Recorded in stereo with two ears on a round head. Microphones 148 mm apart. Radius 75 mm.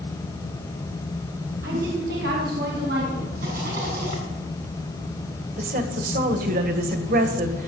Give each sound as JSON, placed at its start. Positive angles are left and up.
{"t": 1.6, "sound": "a woman speaking", "side_deg": -65, "distance_m": 3.5}
{"t": 3.4, "sound": "a rattle", "side_deg": -65, "distance_m": 7.0}
{"t": 5.6, "sound": "a woman speaking", "side_deg": -55, "distance_m": 1.9}